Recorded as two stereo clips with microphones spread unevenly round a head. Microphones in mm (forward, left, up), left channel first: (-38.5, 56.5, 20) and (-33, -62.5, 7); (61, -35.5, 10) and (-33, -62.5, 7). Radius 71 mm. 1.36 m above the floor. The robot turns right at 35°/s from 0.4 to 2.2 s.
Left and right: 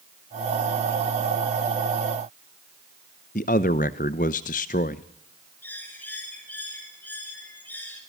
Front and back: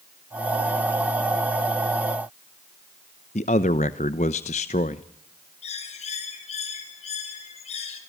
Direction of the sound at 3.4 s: 55° left.